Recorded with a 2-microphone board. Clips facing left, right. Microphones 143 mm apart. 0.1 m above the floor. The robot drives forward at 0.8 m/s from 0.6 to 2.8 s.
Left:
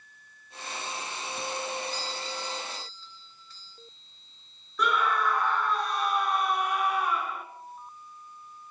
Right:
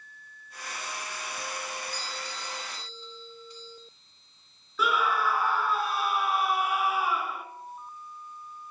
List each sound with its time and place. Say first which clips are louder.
1.9 s a doorbell: left 3 dB; 15° right (ahead or behind), 2.5 m
4.8 s a scream: even; 5° right (ahead or behind), 1.1 m